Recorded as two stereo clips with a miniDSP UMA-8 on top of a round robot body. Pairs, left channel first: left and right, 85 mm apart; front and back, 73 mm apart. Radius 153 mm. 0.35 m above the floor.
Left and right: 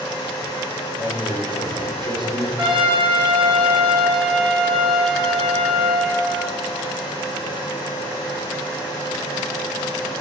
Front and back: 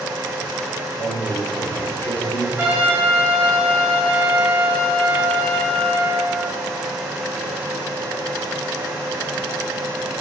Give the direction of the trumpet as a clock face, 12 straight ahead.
4 o'clock.